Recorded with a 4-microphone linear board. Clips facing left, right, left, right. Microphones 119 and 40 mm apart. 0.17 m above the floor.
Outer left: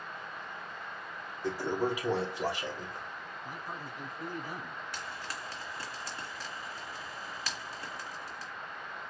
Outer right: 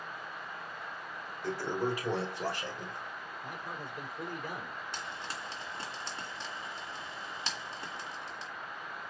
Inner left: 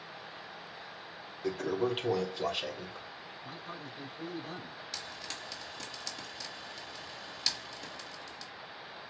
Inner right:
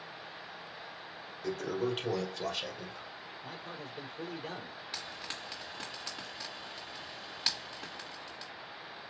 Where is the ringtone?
No ringtone in this recording.